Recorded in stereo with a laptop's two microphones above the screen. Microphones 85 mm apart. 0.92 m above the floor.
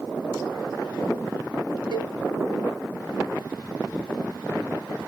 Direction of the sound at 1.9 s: 65° right (ahead or behind).